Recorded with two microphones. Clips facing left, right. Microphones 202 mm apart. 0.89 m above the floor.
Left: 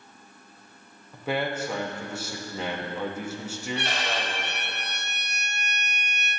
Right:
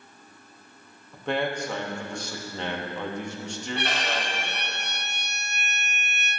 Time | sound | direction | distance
1.1 | a man speaking | 5° left (ahead or behind) | 0.9 m
3.8 | a violin | 55° right (ahead or behind) | 2.0 m